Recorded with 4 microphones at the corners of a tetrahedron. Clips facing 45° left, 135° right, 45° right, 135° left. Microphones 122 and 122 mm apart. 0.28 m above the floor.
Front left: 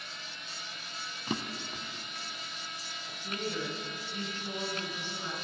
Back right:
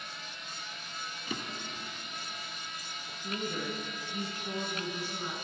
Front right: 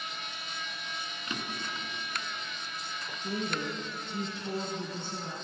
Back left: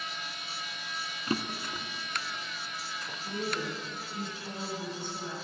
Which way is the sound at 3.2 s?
65° right.